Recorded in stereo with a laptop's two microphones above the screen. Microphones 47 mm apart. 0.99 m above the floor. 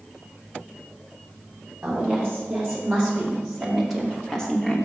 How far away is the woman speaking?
About 3 m.